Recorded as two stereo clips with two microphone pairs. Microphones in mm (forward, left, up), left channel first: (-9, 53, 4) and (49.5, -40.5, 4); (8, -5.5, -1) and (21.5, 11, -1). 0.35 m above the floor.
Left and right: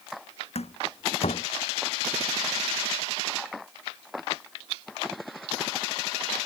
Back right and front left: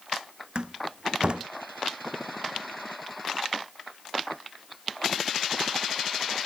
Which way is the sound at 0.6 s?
100° left.